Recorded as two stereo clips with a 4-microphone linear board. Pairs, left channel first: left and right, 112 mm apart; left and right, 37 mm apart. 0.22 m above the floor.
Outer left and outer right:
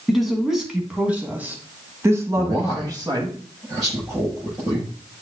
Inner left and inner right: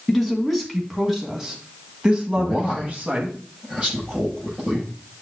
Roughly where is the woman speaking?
Centre.